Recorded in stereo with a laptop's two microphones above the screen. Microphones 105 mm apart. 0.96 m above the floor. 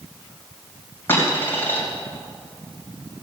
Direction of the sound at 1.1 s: 20° left (ahead or behind).